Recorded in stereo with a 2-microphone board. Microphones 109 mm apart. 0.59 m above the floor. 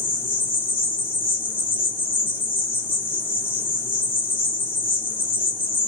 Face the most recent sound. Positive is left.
turn(degrees=20)  # may be behind; listen again after turning